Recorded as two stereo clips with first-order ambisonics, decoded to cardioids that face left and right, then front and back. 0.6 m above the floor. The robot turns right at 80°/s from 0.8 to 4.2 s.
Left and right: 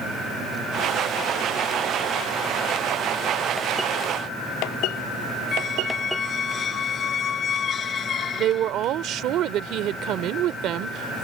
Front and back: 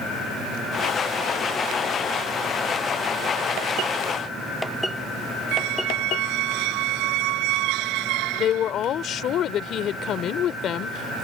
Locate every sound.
5.5 s a squeak: 155° left
8.4 s a woman speaking: 50° right